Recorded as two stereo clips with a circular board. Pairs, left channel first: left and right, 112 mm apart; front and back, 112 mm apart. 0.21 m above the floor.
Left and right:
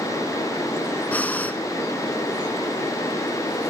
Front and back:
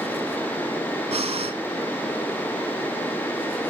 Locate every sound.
1.1 s breathing: 165° left, 0.7 m